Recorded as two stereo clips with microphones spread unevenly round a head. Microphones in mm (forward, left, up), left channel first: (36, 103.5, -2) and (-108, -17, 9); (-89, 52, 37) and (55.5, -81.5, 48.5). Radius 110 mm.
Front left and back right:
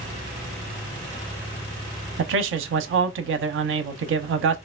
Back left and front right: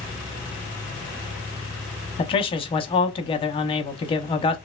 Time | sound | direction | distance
2.2 | a man speaking | 160° right | 0.6 m